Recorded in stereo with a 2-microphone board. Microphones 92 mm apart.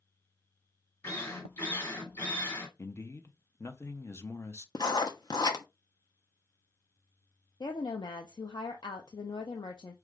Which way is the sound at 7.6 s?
55° left (ahead or behind).